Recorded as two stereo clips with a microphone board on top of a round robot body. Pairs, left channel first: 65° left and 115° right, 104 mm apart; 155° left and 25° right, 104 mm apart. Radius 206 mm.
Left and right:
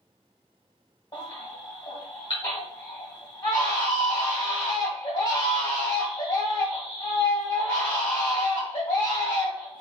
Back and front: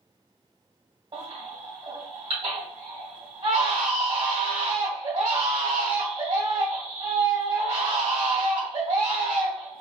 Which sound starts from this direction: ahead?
A baby crying, at 1.1 s.